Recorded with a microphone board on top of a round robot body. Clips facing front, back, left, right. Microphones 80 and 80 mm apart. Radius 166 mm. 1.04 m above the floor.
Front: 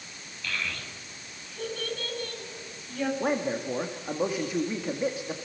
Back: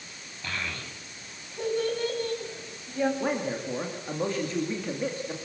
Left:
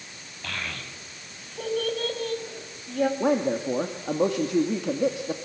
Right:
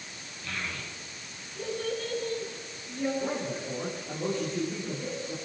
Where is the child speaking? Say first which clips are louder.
Even, left 2 dB; 115° left, 6.5 m; by 3.1 s 105° left, 6 m.